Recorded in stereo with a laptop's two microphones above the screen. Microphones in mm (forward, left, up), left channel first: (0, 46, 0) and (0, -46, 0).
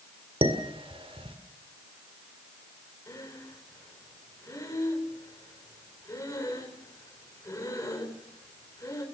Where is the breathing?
35° left (ahead or behind), 3.5 m.